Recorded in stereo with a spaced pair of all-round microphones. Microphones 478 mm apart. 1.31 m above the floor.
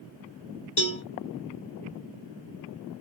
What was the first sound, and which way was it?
A cowbell, 40° left (ahead or behind).